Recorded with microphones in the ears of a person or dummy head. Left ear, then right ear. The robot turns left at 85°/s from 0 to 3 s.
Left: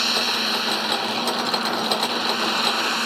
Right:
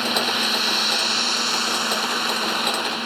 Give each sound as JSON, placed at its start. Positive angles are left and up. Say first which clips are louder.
{"t": 0.0, "sound": "a drone", "louder": "even", "azimuth_deg": 40}